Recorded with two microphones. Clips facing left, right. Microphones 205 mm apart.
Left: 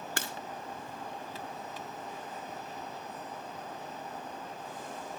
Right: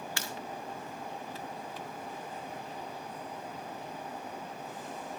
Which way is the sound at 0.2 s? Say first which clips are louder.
Left 2 dB; 55° left (ahead or behind).